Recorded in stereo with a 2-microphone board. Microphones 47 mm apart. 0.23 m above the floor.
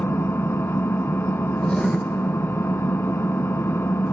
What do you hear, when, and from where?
0.0 s an engine running: 60° left (ahead or behind), 0.8 m
1.6 s writing: 20° left (ahead or behind), 1.4 m